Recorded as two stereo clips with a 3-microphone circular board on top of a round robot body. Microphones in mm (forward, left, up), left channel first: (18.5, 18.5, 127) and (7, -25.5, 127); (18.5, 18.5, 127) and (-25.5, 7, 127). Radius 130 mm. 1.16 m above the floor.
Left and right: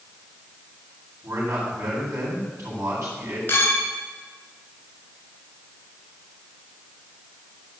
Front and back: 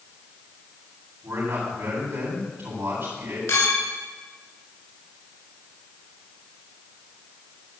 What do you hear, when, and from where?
1.2 s a man speaking: 110° right, 8.5 m
3.5 s a clink: 25° left, 5.5 m